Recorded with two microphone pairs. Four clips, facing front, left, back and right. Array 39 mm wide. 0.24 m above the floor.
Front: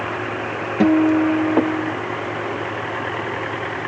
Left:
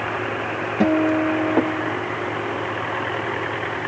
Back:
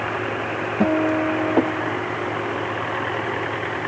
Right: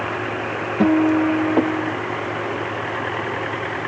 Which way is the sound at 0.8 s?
10° left.